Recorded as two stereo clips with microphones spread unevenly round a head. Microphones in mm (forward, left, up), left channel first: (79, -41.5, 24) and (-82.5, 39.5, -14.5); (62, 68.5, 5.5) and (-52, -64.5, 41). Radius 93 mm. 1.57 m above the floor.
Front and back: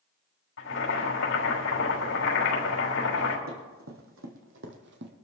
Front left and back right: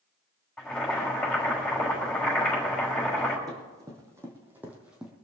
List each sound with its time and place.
0.6 s boiling: 40° right, 5.5 m
3.5 s running footsteps: 165° left, 3.5 m; by 5.1 s 155° left, 2 m